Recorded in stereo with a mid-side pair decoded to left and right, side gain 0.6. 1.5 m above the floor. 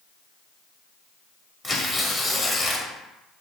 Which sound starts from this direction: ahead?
Tearing paper, at 1.6 s.